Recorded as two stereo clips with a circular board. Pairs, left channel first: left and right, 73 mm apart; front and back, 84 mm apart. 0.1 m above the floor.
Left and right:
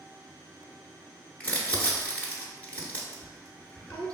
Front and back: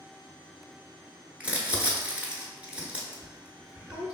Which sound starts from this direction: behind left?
Crumpling, at 1.4 s.